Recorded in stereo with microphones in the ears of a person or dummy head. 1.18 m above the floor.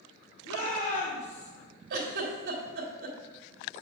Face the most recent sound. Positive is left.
turn(degrees=-60)  # may be behind; listen again after turning